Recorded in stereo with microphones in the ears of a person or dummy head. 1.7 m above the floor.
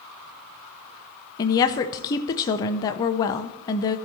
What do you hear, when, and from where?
1.4 s a woman speaking: 25° left (ahead or behind), 0.7 m